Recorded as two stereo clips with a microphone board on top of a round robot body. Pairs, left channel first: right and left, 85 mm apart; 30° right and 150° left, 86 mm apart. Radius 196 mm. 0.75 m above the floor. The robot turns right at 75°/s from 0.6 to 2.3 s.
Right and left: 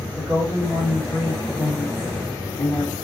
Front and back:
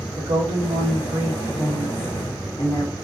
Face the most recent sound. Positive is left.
turn(degrees=-80)